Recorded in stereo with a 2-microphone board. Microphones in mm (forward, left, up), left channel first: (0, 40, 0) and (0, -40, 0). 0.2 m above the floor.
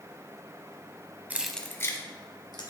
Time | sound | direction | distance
1.3 | keys jangling | 20° right (ahead or behind) | 0.7 m